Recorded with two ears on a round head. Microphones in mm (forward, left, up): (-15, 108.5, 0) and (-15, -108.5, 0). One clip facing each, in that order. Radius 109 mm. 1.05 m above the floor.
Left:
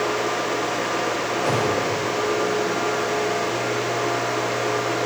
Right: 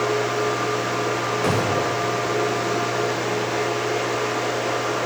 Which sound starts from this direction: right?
A gunshot, at 1.4 s.